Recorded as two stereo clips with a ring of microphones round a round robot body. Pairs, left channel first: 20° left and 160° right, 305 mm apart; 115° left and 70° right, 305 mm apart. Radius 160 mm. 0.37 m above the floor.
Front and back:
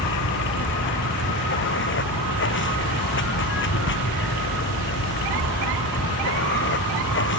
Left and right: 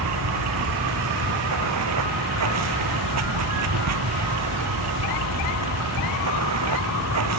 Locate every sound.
0.0 s running water: 30° right